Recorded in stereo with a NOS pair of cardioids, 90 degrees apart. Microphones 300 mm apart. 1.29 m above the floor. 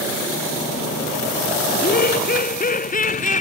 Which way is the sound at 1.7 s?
30° left.